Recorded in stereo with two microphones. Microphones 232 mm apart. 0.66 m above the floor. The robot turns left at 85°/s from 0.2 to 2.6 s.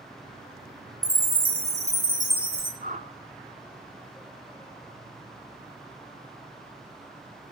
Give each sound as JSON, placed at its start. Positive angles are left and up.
{"t": 1.0, "sound": "a chime", "azimuth_deg": -25, "distance_m": 1.3}
{"t": 2.8, "sound": "a whoosh", "side_deg": -35, "distance_m": 0.5}